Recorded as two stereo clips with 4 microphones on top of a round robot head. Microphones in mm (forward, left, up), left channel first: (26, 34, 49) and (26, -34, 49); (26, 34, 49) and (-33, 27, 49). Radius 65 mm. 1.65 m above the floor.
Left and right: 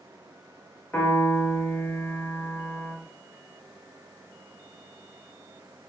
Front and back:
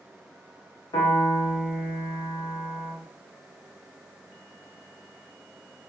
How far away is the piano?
About 0.7 m.